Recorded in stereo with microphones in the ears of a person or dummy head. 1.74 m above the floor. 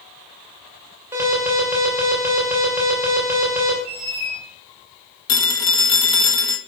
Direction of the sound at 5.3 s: 20° left (ahead or behind).